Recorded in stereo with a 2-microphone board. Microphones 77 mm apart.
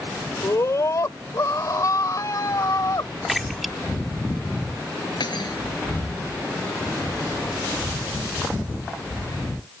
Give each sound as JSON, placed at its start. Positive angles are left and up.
{"t": 0.4, "sound": "a scream", "side_deg": 40}
{"t": 3.3, "sound": "a splash", "side_deg": 0}
{"t": 5.2, "sound": "cutlery clinking", "side_deg": 70}